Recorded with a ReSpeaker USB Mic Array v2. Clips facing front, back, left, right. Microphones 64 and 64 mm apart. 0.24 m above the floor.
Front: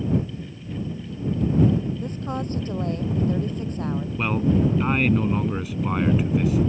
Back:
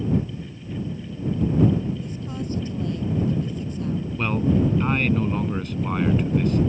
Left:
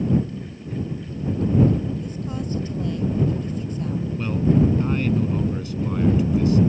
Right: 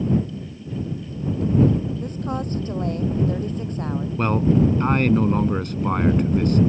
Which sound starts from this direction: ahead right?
A woman speaking, at 2.0 s.